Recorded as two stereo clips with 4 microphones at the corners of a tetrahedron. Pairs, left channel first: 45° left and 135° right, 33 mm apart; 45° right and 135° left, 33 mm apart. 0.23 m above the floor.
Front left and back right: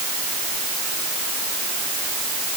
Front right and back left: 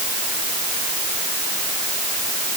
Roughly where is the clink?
No clink in this recording.